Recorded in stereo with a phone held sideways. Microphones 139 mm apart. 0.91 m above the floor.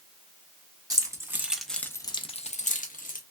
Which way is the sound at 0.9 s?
25° right (ahead or behind).